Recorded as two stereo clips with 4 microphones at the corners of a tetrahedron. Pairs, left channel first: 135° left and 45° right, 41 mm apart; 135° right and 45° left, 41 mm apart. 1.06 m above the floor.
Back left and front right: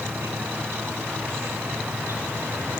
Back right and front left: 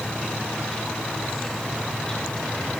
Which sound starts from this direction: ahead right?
An insect, at 0.0 s.